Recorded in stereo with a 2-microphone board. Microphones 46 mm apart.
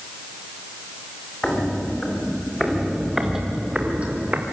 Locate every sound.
1.4 s footsteps: 20° left (ahead or behind), 4.5 m; by 4.4 s 35° right (ahead or behind), 3 m